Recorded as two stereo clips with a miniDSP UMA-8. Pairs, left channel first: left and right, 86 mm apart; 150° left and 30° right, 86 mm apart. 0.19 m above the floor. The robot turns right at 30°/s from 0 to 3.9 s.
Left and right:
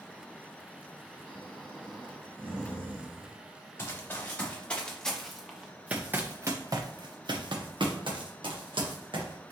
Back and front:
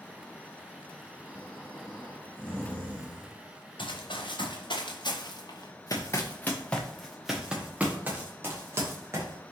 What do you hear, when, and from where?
1.2 s snoring: 165° left, 1.8 m; by 3.4 s 135° right, 1.8 m
3.8 s running footsteps: 150° left, 1.7 m; by 9.5 s 80° right, 2.0 m